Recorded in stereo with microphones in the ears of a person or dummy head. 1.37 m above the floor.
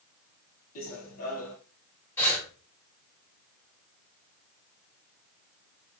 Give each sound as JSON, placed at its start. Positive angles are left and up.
{"t": 0.8, "sound": "running footsteps", "side_deg": 45, "distance_m": 2.5}
{"t": 2.2, "sound": "breathing", "side_deg": 10, "distance_m": 5.5}